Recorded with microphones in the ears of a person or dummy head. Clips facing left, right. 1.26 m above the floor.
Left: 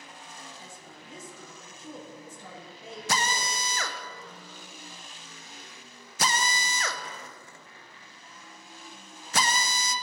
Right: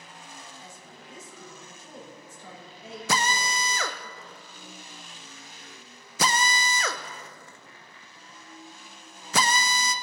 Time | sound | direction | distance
0.6 | a woman speaking | 75° left (ahead or behind) | 3 m
3.1 | a drill | 60° right (ahead or behind) | 0.5 m